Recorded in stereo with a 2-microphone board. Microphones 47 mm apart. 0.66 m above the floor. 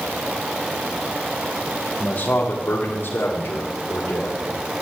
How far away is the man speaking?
About 1.7 m.